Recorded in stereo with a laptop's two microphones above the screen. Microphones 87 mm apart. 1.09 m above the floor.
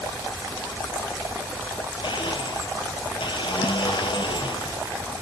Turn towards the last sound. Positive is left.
turn(degrees=75)  # may be behind; listen again after turning